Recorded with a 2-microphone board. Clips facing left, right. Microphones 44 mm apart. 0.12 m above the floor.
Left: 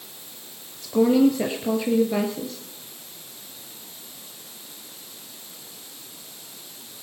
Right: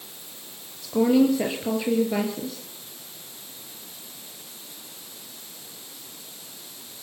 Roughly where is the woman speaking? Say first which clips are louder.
Left 1 dB; centre.